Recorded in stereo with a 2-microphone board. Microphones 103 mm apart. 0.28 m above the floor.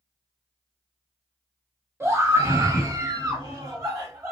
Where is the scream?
25° right (ahead or behind), 1.2 m; by 4.3 s 30° right (ahead or behind), 1.3 m.